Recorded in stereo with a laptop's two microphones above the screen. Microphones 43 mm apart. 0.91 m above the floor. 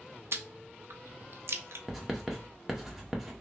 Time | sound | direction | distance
0.3 | chewing | 65° right (ahead or behind) | 0.6 m
1.9 | writing | 5° right (ahead or behind) | 0.7 m